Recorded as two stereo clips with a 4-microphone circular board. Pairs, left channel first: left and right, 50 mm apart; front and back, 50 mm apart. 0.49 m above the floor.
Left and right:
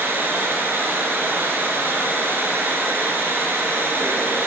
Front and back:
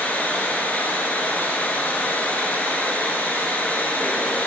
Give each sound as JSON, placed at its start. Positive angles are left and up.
{"t": 0.0, "sound": "running water", "azimuth_deg": -60, "distance_m": 1.1}